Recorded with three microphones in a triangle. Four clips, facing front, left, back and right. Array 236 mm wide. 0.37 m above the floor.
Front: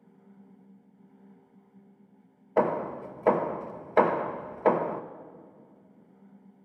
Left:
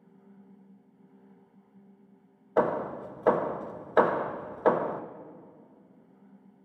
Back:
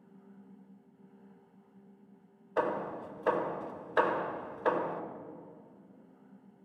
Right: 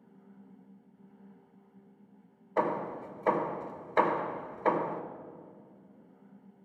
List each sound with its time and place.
2.6 s hammering: 45° left, 0.6 m